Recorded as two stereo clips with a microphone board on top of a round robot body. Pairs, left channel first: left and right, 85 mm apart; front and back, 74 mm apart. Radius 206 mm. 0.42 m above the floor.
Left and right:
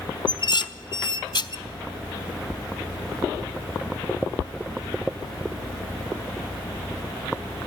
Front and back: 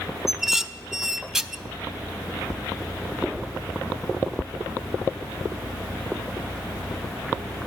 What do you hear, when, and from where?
0.3 s dishes clattering: 95° left, 0.8 m